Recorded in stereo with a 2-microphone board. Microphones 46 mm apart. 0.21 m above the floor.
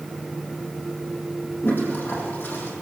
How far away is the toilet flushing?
About 6.5 m.